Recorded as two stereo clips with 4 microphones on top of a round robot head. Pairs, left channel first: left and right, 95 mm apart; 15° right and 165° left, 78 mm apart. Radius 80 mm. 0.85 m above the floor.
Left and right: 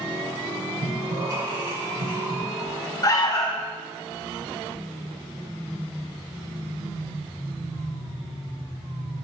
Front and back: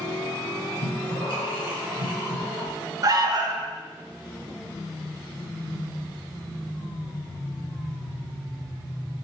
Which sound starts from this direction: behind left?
An alarm, at 3.0 s.